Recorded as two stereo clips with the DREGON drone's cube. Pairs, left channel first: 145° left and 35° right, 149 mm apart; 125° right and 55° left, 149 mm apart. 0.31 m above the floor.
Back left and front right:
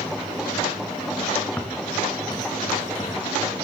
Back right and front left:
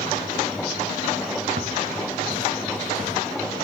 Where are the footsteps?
65° left, 1.6 m; by 3.1 s 95° left, 3.5 m.